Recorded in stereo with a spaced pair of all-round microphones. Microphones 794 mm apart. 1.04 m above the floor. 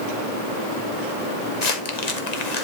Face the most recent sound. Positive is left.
turn(degrees=55)  # may be behind; listen again after turning